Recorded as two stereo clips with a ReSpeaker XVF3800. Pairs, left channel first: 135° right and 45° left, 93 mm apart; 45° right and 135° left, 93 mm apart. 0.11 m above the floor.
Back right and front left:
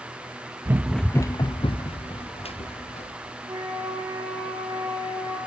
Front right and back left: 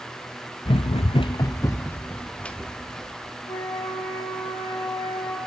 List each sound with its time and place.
0.7 s running footsteps: 15° right, 0.6 m; by 3.1 s 130° right, 2 m
3.5 s a flute: 10° right, 4 m